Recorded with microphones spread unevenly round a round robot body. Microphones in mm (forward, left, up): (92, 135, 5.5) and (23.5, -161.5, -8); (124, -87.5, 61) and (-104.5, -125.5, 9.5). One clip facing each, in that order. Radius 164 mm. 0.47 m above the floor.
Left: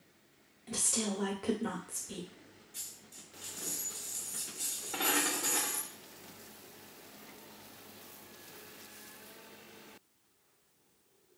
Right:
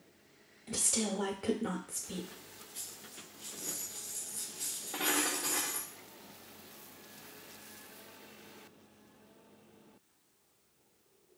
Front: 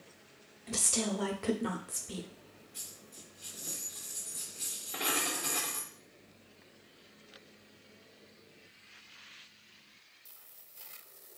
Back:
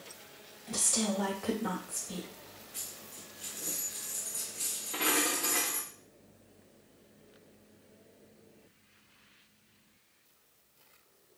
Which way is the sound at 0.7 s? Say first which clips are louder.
Right 1 dB, back 1 dB; 20° right.